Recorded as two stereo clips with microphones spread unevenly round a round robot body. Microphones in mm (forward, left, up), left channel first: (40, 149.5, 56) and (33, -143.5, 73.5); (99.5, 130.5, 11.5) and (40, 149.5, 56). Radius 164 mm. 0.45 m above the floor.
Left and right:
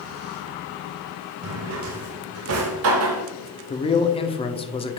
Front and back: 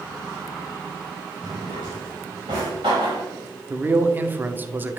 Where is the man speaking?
50° left, 0.9 m.